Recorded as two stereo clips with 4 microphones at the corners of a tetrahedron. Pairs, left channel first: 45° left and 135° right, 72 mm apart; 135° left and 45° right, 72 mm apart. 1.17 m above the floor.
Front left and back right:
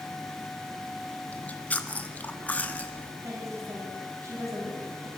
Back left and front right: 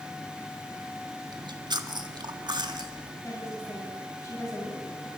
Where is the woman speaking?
Straight behind, 8.5 m.